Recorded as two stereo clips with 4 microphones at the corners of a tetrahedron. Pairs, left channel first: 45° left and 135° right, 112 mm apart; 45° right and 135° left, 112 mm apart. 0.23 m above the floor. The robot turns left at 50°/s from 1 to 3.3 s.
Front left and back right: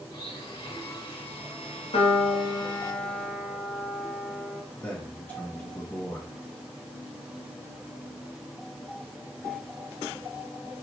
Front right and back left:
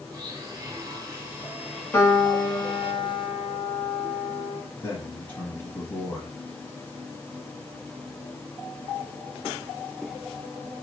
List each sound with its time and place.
0.1 s a blender: 90° left, 1.2 m; by 2.9 s 10° right, 1.2 m
1.9 s a piano: 25° left, 0.9 m; by 4.6 s 45° right, 0.9 m
4.8 s a man speaking: 10° right, 1.0 m